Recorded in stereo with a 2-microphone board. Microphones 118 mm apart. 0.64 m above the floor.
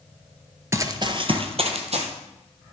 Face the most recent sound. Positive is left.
turn(degrees=-65)  # may be behind; listen again after turning